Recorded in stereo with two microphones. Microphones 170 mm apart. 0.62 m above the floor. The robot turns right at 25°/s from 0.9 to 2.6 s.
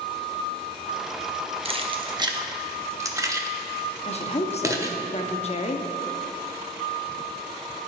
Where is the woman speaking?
40° left (ahead or behind), 0.7 m.